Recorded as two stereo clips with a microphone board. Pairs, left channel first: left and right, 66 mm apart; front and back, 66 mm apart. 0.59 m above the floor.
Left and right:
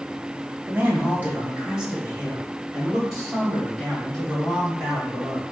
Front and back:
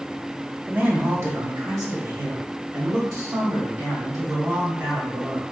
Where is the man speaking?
120° right, 0.8 m; by 5.4 s 175° left, 3 m.